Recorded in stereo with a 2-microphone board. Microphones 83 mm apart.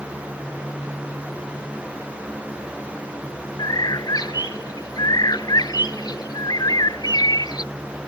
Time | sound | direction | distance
3.6 | a bird | 55° left (ahead or behind) | ?